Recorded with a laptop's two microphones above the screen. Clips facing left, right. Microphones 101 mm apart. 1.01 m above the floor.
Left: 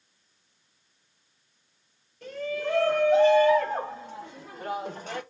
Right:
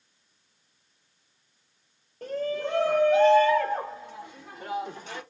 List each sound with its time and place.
2.2 s a shout: 45° right (ahead or behind), 0.7 m; by 5.2 s 55° left (ahead or behind), 1.4 m